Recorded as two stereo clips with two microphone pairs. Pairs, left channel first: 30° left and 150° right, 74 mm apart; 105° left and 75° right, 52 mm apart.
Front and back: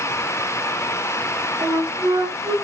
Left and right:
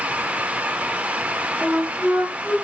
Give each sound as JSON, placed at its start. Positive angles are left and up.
{"t": 1.6, "sound": "a flute", "azimuth_deg": -160, "distance_m": 0.6}